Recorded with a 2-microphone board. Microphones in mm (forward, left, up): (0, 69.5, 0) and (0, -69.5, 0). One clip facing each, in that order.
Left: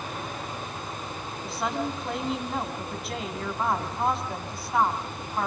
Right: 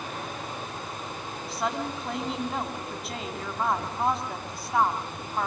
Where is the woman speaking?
Centre (ahead or behind), 4.5 m.